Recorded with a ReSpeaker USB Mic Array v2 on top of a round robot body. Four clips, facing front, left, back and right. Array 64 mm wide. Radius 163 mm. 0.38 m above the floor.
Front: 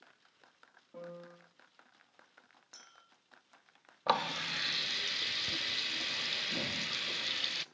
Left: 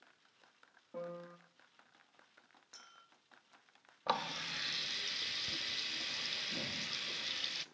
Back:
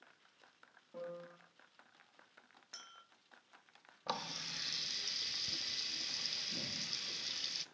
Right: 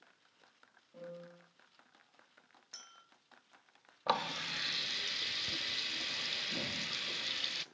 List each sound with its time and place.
0.9 s a piano: 95° left, 3.5 m
2.7 s a clink: 150° right, 2 m
4.1 s a running tap: 10° right, 0.6 m